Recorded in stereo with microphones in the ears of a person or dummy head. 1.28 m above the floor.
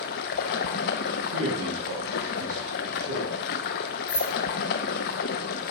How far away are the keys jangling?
About 2 m.